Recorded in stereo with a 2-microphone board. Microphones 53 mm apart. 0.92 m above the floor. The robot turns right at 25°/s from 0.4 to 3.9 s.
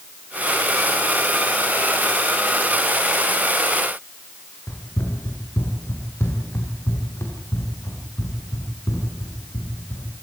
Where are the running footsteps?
50° left (ahead or behind), 4 m; by 10.1 s 80° left, 7.5 m.